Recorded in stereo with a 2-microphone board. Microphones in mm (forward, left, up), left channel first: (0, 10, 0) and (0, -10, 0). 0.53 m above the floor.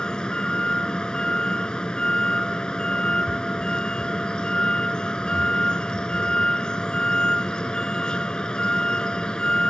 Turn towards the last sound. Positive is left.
turn(degrees=50)  # may be behind; listen again after turning